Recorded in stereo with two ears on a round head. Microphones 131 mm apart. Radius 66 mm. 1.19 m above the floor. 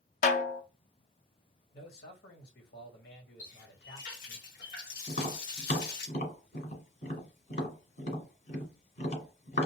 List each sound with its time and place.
0.2 s a snare drum: 50° left (ahead or behind), 0.6 m
1.7 s a man speaking: 70° left (ahead or behind), 1.4 m
3.4 s a running tap: 60° left (ahead or behind), 1.2 m
5.1 s tapping: 55° left (ahead or behind), 1.7 m